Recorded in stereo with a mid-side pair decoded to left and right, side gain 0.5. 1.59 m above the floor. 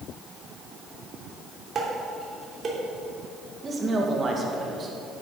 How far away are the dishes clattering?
About 3 m.